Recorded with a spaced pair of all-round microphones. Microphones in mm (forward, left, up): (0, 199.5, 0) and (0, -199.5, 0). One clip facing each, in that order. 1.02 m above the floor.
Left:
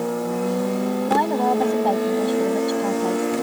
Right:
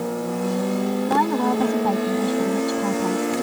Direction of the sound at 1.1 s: 20° right (ahead or behind).